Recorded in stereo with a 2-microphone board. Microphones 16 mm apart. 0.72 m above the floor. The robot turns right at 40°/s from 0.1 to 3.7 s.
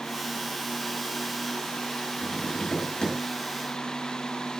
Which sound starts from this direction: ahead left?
Tapping, at 2.2 s.